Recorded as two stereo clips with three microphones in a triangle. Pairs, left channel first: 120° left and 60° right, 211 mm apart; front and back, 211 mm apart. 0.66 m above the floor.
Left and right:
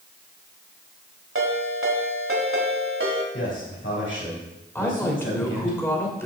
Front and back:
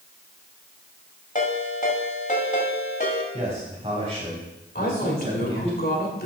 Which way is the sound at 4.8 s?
40° left.